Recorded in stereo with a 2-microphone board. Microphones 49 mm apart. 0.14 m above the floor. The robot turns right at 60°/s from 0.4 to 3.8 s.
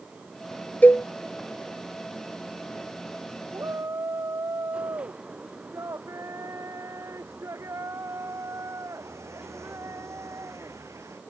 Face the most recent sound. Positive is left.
turn(degrees=-80)